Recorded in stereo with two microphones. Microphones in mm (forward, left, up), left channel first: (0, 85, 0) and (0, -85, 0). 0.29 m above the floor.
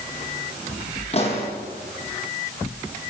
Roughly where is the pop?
Left.